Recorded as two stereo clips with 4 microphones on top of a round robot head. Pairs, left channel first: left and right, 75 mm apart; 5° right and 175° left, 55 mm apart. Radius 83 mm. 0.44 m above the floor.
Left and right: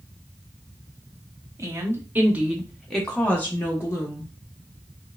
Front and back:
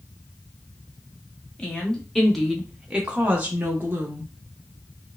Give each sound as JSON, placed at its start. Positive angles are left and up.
{"t": 1.6, "sound": "a woman speaking", "azimuth_deg": -65, "distance_m": 0.9}